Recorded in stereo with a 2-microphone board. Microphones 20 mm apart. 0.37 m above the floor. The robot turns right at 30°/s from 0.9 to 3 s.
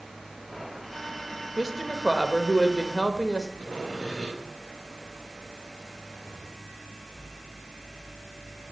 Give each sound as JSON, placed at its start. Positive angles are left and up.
{"t": 1.6, "sound": "a woman speaking", "azimuth_deg": -20, "distance_m": 0.9}
{"t": 3.6, "sound": "sawing", "side_deg": 45, "distance_m": 6.0}